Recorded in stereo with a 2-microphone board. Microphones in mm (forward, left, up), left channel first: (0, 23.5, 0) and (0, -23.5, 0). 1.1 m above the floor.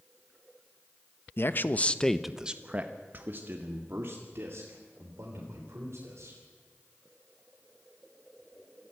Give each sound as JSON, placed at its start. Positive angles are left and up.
{"t": 1.4, "sound": "a man speaking", "side_deg": 55, "distance_m": 1.1}